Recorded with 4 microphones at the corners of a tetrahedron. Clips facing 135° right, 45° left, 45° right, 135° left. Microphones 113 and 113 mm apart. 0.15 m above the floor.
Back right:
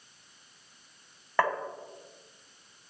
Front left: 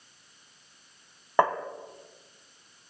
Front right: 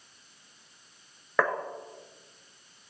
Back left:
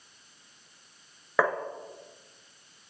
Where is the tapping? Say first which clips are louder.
Front left 4 dB, back left 1 dB; 55° left, 1.3 m.